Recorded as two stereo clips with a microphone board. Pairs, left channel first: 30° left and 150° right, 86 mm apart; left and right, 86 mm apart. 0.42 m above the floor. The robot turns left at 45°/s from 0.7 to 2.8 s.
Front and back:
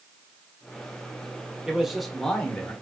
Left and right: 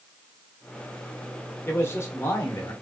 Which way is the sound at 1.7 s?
135° left.